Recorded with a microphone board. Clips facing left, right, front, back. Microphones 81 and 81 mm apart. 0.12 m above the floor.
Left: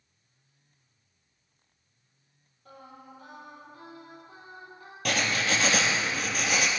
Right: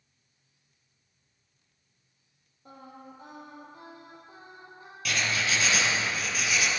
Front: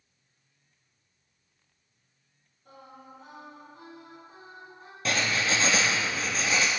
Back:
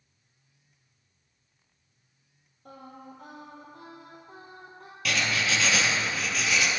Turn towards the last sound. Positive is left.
turn(degrees=55)